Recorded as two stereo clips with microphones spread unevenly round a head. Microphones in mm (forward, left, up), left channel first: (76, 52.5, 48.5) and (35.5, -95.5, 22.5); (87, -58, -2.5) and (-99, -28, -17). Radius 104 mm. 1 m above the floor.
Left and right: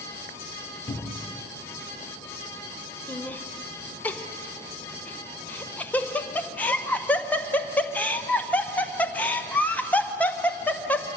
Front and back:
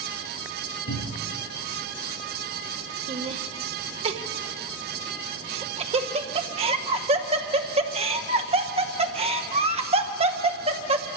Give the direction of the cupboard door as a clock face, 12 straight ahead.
12 o'clock.